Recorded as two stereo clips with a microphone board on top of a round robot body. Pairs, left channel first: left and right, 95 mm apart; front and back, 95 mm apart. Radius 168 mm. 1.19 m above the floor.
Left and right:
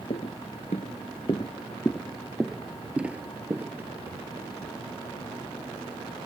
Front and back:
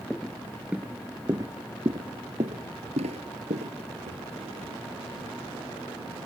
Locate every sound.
0.1 s footsteps: 80° left; by 5.3 s 155° right